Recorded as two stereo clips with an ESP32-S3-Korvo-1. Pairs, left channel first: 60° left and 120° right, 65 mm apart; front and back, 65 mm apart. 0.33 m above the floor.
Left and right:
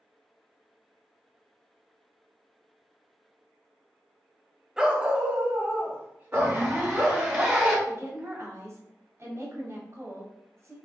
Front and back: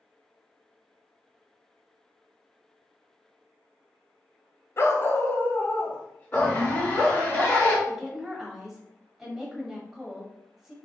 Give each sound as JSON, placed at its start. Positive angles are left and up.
{"t": 4.8, "sound": "a dog barking", "azimuth_deg": -40, "distance_m": 0.5}
{"t": 6.3, "sound": "a zipper", "azimuth_deg": -45, "distance_m": 1.9}
{"t": 7.9, "sound": "a woman speaking", "azimuth_deg": -100, "distance_m": 1.3}